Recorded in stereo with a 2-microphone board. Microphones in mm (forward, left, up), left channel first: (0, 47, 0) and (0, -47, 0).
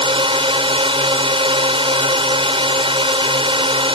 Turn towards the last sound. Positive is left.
turn(degrees=-70)  # may be behind; listen again after turning